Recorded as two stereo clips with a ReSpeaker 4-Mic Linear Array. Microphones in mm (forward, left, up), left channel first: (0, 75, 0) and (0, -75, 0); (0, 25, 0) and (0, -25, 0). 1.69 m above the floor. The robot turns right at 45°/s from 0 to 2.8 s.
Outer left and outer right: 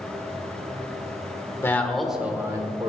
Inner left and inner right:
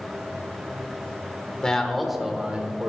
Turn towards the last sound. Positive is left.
turn(degrees=-145)